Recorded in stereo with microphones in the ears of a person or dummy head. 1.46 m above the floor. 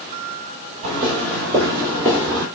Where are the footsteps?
30° right (ahead or behind), 2 m; by 2.5 s 10° right (ahead or behind), 2 m.